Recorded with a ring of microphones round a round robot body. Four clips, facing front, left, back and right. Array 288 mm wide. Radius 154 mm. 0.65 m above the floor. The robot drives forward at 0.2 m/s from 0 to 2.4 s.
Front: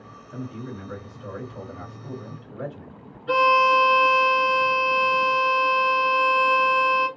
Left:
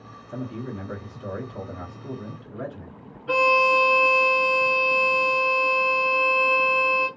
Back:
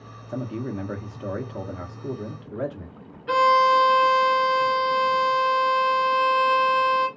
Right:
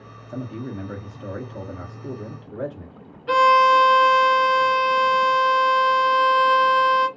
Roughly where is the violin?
Right.